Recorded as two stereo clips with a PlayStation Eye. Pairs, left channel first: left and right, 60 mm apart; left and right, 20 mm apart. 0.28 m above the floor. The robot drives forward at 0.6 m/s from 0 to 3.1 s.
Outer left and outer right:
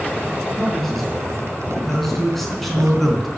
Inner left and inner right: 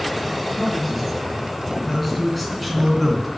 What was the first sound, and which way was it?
A man speaking, centre (ahead or behind).